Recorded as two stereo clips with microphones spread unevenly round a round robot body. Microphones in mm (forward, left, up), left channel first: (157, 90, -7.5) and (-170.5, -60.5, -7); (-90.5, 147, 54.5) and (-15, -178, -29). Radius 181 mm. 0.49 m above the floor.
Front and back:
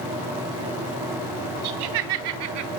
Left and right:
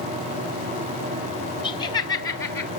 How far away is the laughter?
About 3 m.